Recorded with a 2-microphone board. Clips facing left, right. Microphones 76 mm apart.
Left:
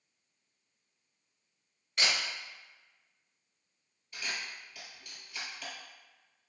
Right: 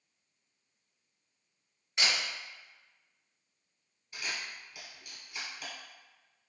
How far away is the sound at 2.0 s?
About 1.9 m.